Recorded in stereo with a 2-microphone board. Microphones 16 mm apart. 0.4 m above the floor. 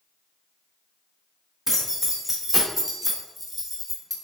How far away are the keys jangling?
About 0.9 m.